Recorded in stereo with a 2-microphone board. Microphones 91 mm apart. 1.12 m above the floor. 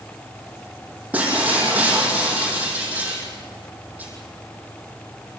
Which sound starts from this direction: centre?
Breaking glass, at 1.1 s.